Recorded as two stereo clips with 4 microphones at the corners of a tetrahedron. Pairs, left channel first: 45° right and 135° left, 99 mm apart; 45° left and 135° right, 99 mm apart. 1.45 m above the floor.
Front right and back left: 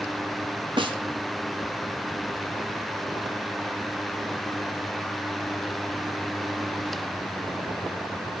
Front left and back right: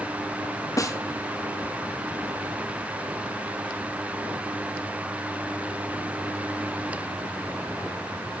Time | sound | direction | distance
0.8 | a snare drum | 100° left | 1.9 m